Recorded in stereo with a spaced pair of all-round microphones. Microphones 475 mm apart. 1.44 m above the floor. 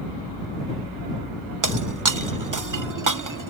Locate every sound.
1.6 s breaking glass: 40° right (ahead or behind)